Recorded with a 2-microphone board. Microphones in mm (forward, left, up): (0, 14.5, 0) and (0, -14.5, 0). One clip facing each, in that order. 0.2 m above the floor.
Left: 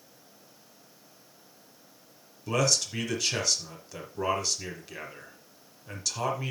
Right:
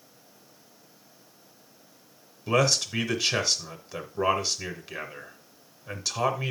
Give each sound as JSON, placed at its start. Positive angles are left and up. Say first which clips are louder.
{"t": 2.5, "sound": "a man speaking", "louder": "right 3 dB", "side_deg": -20, "distance_m": 1.2}